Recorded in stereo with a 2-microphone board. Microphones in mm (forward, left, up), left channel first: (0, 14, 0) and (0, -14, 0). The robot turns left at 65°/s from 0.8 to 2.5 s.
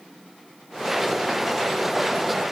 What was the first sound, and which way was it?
Only background noise.